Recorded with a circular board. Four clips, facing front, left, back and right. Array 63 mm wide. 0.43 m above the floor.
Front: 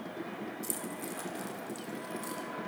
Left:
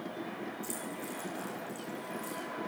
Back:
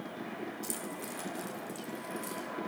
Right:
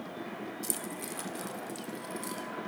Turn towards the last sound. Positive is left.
turn(degrees=-75)